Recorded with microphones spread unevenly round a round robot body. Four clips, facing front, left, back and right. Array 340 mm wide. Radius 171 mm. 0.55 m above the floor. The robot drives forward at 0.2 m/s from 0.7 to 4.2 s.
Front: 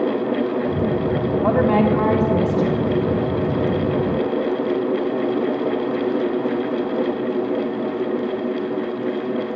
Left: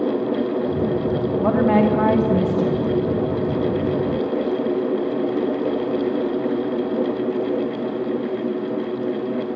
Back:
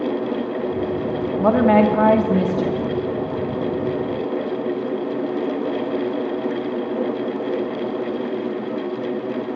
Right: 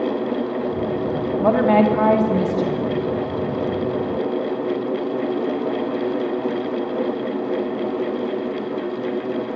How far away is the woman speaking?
About 1.3 m.